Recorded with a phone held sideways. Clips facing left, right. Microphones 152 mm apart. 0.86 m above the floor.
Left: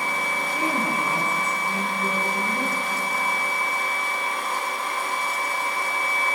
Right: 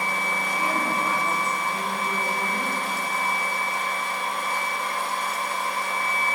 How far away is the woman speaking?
About 9.5 m.